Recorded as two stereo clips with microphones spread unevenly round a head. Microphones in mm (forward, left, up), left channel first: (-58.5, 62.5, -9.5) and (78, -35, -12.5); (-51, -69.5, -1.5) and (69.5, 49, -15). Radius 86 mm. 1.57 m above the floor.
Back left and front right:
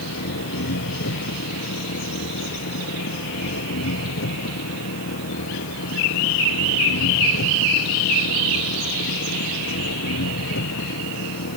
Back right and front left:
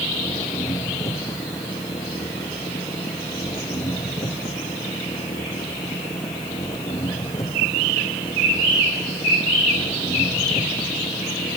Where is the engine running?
150° left.